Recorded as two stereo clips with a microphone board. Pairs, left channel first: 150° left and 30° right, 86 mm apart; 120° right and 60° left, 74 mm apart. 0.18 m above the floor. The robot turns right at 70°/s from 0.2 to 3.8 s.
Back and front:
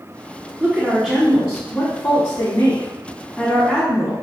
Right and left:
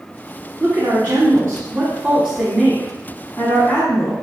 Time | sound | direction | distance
0.6 | a woman speaking | 5° left | 1.3 m